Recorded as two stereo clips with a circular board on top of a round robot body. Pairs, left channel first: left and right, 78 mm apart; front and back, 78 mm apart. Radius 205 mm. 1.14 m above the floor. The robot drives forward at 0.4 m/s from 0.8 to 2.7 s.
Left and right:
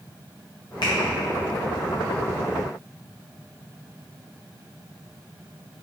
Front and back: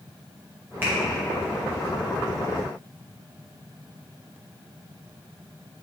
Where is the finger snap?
115° left, 0.6 m; by 0.9 s 120° left, 0.6 m.